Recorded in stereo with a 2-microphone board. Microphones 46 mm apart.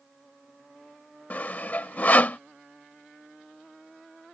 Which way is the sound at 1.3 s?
35° left (ahead or behind).